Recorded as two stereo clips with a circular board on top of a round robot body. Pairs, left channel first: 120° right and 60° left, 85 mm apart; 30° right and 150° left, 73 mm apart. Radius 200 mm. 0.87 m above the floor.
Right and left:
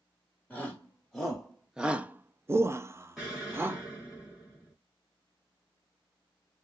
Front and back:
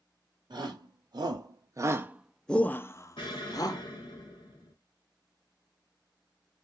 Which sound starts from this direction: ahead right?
An explosion, at 3.2 s.